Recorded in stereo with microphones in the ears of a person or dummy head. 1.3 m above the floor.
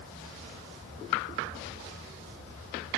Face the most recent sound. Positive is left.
No sound to turn to.